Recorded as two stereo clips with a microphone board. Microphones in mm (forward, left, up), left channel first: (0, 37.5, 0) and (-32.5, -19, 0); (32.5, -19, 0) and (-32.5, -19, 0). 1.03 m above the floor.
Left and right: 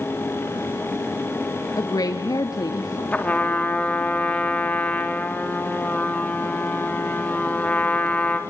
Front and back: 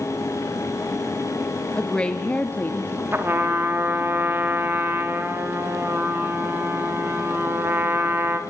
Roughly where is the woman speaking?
Left.